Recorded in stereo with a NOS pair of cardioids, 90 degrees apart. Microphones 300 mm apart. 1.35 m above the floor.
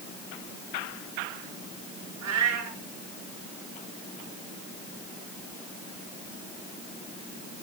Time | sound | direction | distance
2.2 | a cat meowing | 70° right | 5.5 m